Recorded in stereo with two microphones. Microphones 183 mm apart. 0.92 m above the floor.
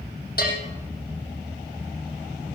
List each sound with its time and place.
0.4 s a bell: 60° left (ahead or behind), 6 m